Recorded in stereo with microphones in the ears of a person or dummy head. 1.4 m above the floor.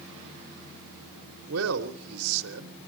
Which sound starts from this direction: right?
A man speaking, at 1.4 s.